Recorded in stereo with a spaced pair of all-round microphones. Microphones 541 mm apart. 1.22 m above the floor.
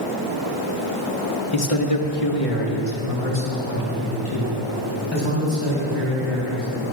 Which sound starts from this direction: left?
A man speaking, at 1.5 s.